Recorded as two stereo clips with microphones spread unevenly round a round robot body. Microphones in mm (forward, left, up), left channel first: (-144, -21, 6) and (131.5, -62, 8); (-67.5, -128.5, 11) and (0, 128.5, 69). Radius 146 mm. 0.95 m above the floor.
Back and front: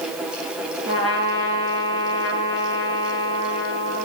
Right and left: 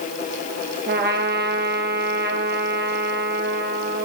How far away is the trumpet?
About 3 m.